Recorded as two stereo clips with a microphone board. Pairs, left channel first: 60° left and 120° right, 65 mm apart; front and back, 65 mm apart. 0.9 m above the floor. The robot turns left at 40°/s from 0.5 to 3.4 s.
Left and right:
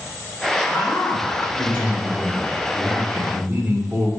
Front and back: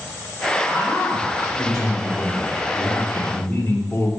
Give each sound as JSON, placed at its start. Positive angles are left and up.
{"t": 0.7, "sound": "a man speaking", "azimuth_deg": 40, "distance_m": 2.5}